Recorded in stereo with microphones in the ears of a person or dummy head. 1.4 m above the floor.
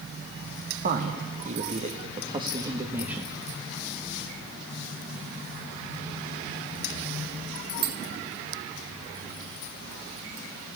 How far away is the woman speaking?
About 2.5 m.